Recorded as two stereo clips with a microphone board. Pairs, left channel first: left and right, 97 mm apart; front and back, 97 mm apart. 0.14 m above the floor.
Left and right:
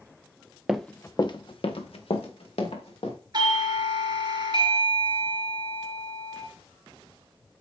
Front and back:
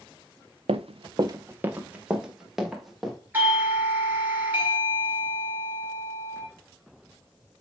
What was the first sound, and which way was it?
Running footsteps, 175° right.